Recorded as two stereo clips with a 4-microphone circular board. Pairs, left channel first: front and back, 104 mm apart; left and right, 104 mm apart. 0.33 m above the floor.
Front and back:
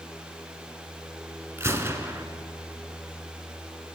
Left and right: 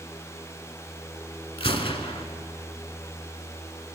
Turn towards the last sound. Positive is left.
turn(degrees=115)